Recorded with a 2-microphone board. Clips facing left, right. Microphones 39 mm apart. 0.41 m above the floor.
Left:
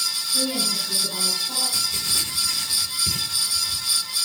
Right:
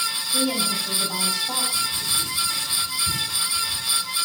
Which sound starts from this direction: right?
A woman speaking, at 0.3 s.